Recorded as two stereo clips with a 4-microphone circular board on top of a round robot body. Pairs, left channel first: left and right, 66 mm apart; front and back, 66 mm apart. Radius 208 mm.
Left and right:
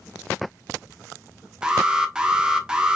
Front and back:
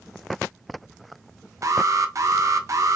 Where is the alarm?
165° right, 1.3 m.